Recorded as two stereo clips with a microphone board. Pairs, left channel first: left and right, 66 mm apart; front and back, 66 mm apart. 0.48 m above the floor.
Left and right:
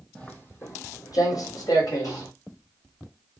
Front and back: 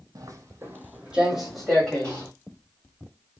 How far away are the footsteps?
About 1.0 m.